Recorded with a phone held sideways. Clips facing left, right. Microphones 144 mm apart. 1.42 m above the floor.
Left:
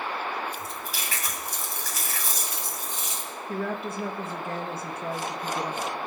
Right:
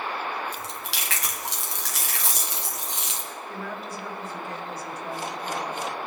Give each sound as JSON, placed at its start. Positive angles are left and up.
{"t": 0.5, "sound": "chewing", "side_deg": -85, "distance_m": 1.5}
{"t": 3.5, "sound": "a woman speaking", "side_deg": 55, "distance_m": 1.3}